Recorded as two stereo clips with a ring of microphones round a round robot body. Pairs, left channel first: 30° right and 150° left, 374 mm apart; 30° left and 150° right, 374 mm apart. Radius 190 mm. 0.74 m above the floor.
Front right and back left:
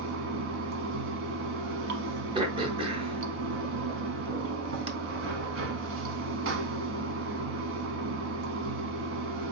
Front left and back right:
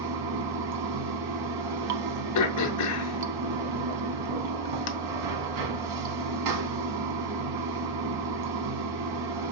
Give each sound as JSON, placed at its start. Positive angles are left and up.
{"t": 0.0, "sound": "running water", "azimuth_deg": -160, "distance_m": 1.0}
{"t": 2.4, "sound": "throat clearing", "azimuth_deg": 75, "distance_m": 0.5}